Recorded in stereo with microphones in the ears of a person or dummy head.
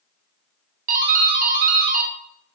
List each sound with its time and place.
0.9 s a doorbell: 45° right (ahead or behind), 0.5 m